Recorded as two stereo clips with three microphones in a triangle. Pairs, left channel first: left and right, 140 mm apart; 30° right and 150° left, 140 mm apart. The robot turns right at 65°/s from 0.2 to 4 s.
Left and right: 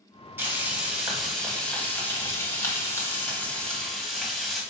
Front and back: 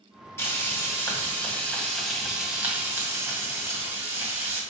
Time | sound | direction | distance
0.4 | frying | 55° right | 1.4 m